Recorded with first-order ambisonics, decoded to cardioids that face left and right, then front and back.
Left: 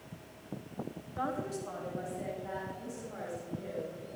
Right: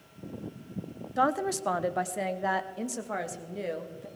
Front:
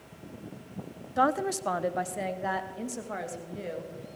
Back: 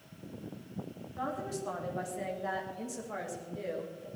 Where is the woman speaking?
35° right, 0.6 m; by 4.1 s 75° right, 2 m.